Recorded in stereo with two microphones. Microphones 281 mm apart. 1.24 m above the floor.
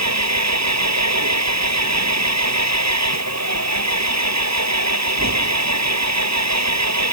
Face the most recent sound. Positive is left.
turn(degrees=-70)  # may be behind; listen again after turning